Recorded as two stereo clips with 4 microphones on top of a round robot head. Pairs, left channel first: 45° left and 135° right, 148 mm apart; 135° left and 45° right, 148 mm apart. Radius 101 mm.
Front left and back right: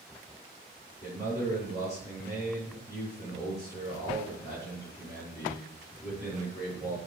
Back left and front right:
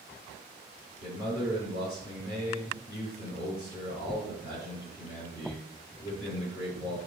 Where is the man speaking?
115° left, 5 m.